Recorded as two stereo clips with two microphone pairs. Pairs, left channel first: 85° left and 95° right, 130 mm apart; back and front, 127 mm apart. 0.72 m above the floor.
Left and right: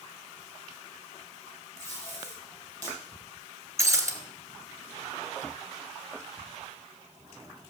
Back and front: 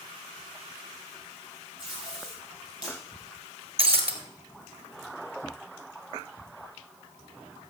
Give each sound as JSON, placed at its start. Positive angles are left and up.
{"t": 1.8, "sound": "tape being pulled", "azimuth_deg": -30, "distance_m": 7.0}
{"t": 3.8, "sound": "breaking glass", "azimuth_deg": -30, "distance_m": 1.5}